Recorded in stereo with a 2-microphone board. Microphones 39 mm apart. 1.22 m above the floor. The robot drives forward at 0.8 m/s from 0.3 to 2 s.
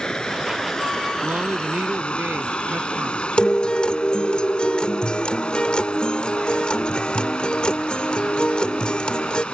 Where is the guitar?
30° left (ahead or behind).